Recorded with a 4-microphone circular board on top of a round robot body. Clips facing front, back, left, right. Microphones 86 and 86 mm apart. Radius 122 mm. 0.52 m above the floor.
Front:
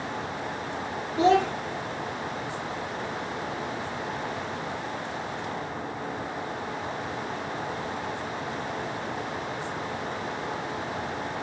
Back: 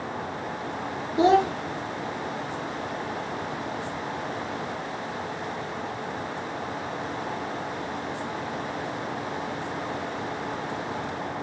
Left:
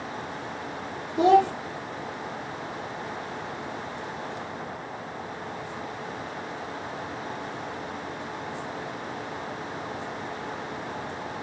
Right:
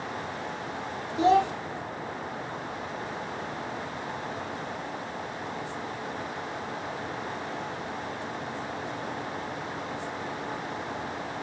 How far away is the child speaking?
About 1.4 m.